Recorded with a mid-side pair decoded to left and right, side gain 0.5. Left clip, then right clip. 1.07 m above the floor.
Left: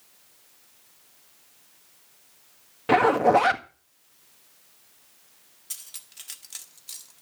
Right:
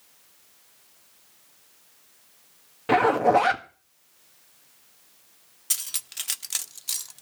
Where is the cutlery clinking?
60° right, 0.5 m.